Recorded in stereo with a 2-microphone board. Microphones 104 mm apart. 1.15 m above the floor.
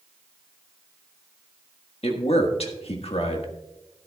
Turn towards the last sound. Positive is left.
turn(degrees=75)  # may be behind; listen again after turning